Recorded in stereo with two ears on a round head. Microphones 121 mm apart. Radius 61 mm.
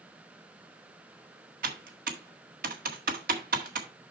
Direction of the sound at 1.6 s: 75° right (ahead or behind).